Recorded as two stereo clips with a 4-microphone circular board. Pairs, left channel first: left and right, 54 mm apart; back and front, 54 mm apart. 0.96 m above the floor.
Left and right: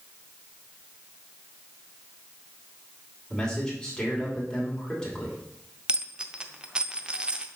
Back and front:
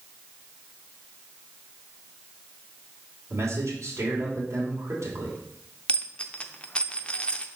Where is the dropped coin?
140° right, 0.6 m.